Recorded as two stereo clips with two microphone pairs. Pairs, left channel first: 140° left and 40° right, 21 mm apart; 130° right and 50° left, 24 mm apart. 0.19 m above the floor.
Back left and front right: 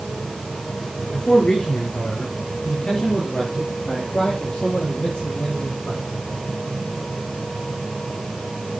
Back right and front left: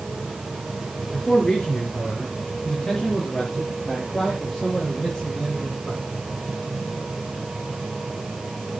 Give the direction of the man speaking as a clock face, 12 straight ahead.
6 o'clock.